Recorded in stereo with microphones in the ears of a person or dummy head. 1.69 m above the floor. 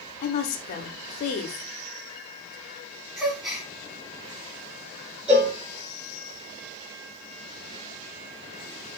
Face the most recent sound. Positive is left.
turn(degrees=-10)  # may be behind; listen again after turning